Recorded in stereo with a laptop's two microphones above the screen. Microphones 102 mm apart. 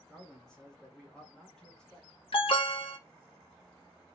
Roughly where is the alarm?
Left.